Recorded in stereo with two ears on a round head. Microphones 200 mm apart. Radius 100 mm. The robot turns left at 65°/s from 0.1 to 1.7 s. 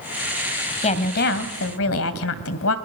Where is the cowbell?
I don't hear a cowbell.